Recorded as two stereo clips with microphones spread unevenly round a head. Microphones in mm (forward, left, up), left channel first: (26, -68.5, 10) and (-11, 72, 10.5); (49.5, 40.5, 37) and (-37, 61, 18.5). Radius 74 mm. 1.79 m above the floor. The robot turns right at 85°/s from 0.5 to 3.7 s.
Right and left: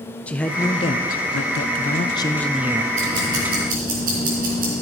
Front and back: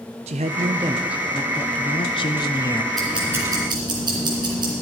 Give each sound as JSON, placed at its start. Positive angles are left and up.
{"t": 0.3, "sound": "a man speaking", "azimuth_deg": -155, "distance_m": 0.5}
{"t": 2.9, "sound": "ticking", "azimuth_deg": 65, "distance_m": 3.5}